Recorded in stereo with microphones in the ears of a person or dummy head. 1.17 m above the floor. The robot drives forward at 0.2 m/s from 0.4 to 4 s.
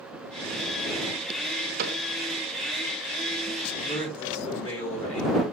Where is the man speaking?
35° left (ahead or behind), 9.5 m.